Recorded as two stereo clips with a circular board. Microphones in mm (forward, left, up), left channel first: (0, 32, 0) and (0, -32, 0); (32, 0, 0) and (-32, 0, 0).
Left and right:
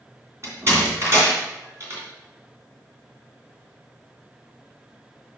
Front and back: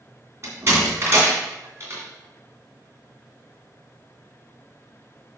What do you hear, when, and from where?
0.4 s a door slam: 135° right, 3 m